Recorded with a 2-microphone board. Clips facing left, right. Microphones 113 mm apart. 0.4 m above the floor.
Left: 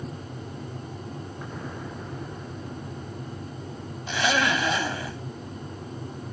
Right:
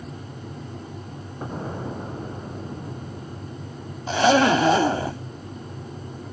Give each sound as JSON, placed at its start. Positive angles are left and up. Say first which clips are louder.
{"t": 1.4, "sound": "an explosion", "louder": "right 9 dB", "side_deg": -35}
{"t": 4.1, "sound": "a zipper", "louder": "right 8 dB", "side_deg": -40}